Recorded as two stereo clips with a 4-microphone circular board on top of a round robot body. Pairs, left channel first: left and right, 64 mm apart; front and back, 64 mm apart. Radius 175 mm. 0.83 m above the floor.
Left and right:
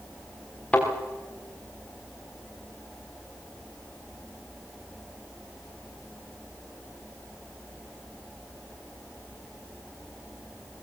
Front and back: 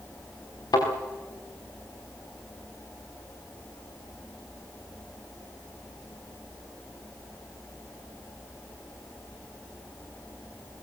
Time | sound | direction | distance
0.7 | a thud | 20° left | 6 m